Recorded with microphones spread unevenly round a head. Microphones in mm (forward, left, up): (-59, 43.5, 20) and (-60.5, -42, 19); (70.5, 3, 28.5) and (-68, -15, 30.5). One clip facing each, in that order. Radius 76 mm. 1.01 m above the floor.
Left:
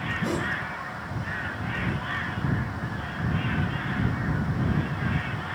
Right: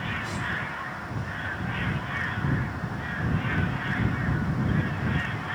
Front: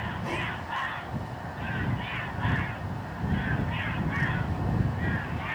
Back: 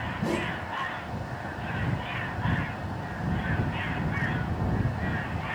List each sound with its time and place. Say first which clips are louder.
0.2 s a whoosh: left 4 dB, back 7 dB; 130° left